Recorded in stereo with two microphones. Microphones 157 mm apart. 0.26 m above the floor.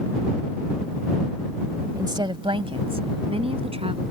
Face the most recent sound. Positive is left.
turn(degrees=-40)  # may be behind; listen again after turning